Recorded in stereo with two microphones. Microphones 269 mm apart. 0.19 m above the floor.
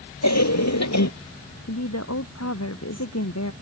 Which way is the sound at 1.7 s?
65° left (ahead or behind).